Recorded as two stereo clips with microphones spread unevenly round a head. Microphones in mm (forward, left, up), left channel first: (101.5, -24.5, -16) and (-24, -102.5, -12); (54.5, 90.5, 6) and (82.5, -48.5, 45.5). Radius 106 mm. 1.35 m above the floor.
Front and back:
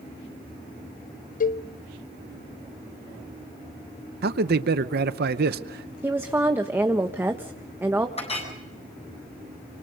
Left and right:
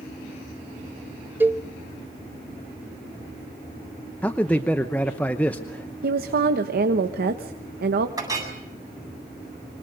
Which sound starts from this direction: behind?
A man speaking, at 4.2 s.